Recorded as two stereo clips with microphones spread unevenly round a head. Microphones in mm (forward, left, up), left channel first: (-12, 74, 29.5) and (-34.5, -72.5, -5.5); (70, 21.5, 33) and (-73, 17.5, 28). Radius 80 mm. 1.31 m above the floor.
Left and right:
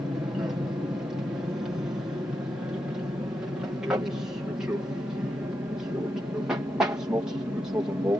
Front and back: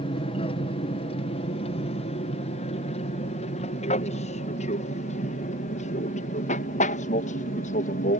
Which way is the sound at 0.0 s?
30° right.